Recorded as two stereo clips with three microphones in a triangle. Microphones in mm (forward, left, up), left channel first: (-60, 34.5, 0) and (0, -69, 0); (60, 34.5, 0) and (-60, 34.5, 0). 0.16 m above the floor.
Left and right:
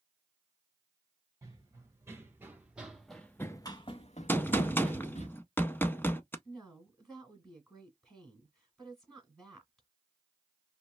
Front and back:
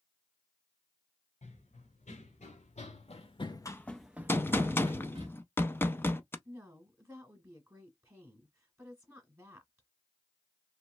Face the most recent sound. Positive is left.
turn(degrees=-155)